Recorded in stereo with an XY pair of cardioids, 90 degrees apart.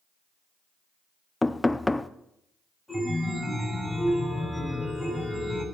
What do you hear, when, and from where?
1.4 s knocking: 15° left, 0.5 m
2.9 s a chime: straight ahead, 8.5 m